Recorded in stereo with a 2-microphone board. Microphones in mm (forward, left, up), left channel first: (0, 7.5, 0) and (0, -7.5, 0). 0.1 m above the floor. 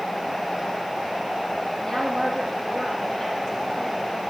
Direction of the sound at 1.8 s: 40° left (ahead or behind).